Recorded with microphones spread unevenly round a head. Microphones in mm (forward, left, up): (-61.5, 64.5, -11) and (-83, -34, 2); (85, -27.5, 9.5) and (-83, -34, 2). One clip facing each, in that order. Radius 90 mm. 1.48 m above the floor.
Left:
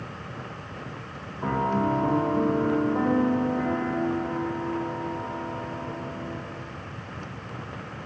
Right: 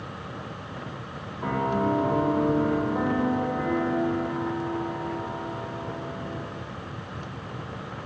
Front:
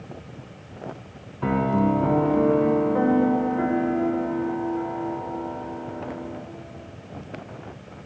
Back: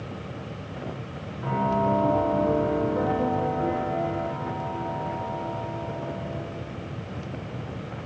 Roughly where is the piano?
Ahead.